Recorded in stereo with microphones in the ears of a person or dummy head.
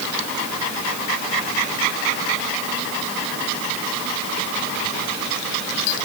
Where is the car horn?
No car horn in this recording.